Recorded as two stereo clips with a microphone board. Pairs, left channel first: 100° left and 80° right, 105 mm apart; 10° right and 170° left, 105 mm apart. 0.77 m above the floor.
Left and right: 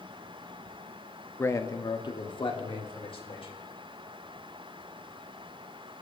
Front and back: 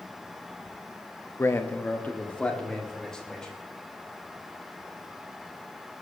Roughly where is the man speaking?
Ahead left.